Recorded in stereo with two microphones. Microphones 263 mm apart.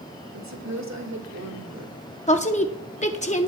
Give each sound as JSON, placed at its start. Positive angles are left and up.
{"t": 0.3, "sound": "a woman speaking", "side_deg": -80, "distance_m": 2.0}
{"t": 2.3, "sound": "a woman speaking", "side_deg": 25, "distance_m": 0.7}